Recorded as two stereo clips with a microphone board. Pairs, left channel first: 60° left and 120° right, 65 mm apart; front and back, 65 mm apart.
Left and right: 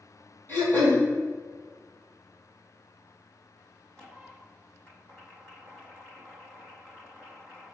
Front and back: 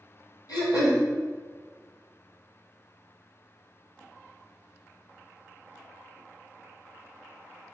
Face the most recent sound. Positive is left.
turn(degrees=5)